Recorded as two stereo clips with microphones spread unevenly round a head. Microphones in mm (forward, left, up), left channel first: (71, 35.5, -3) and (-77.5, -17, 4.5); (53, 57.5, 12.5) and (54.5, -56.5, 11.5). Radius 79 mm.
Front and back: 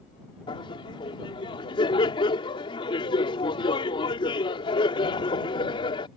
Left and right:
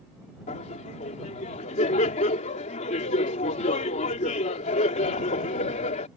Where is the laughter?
80° left.